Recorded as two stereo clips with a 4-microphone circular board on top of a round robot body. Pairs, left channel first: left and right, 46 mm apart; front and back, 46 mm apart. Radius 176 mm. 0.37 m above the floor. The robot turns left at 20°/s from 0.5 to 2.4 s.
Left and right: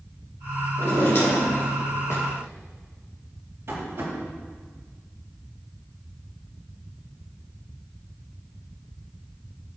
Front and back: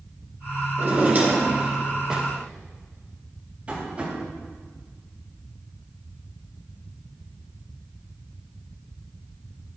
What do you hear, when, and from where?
0.8 s a drawer: 135° left, 3.5 m; by 2.3 s 105° left, 3.5 m
3.7 s tapping: 120° right, 3.5 m